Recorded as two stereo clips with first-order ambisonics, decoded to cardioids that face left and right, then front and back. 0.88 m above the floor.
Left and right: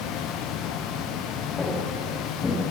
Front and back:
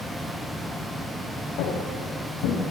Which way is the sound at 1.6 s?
15° left.